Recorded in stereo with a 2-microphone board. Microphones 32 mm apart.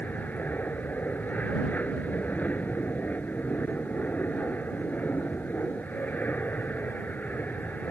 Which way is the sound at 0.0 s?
60° left (ahead or behind).